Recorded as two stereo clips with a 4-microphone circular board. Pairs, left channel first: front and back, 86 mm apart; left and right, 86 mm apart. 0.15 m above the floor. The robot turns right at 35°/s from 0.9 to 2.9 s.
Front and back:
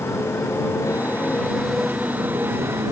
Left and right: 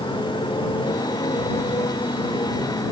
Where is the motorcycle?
60° left; by 2.9 s 130° left.